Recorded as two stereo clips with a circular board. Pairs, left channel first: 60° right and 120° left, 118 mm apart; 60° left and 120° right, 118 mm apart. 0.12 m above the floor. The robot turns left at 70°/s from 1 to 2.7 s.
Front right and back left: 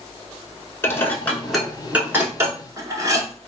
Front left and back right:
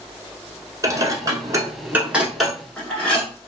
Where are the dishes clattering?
110° right, 0.8 m; by 3.3 s 130° left, 0.8 m.